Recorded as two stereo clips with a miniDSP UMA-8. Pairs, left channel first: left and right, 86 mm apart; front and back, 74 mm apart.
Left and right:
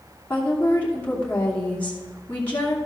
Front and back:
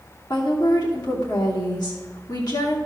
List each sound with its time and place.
0.3 s a woman speaking: 25° left, 2.5 m